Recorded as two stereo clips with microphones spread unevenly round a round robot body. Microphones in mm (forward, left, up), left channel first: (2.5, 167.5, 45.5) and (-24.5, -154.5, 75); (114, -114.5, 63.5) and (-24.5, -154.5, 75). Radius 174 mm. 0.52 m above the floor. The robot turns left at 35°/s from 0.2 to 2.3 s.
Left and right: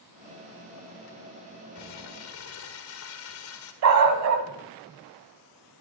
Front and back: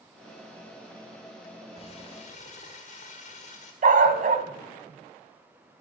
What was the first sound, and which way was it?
Crumpling, 65° left.